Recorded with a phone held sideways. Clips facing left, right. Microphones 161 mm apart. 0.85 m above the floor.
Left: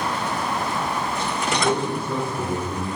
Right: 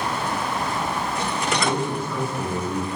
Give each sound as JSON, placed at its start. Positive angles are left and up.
{"t": 1.6, "sound": "a man speaking", "side_deg": 30, "distance_m": 1.2}